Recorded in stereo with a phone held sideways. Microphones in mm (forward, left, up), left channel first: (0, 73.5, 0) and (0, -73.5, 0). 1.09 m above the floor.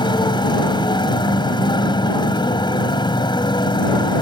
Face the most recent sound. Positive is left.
turn(degrees=35)  # may be behind; listen again after turning